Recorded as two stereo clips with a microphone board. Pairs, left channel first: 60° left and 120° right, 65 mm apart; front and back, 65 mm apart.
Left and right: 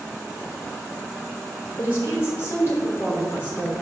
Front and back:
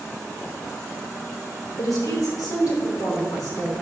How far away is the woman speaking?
About 4 m.